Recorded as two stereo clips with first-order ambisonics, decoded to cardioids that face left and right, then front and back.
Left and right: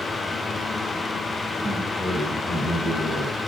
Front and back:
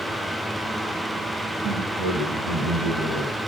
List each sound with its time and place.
1.6 s a man speaking: 165° left, 7.5 m